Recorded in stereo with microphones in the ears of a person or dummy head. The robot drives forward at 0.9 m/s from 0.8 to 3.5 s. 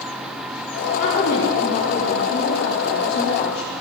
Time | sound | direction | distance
1.0 | a woman speaking | 60° left (ahead or behind) | 6 m